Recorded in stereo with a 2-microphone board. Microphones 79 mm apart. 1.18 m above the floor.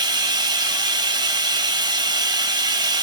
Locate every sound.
0.0 s running water: 60° right (ahead or behind), 0.7 m